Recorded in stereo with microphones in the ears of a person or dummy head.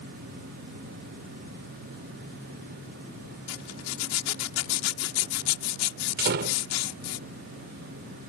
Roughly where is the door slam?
Right.